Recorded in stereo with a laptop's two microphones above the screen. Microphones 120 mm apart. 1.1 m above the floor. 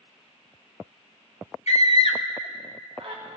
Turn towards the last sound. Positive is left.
turn(degrees=-60)  # may be behind; listen again after turning